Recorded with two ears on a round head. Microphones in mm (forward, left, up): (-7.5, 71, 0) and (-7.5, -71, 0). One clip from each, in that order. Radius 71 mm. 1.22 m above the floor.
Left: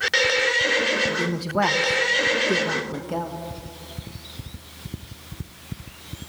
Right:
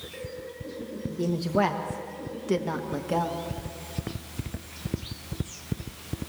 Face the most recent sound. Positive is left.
turn(degrees=-20)  # may be behind; listen again after turning